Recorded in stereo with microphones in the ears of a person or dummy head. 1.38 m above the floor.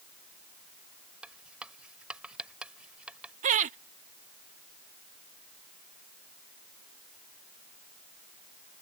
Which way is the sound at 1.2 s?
5° right (ahead or behind).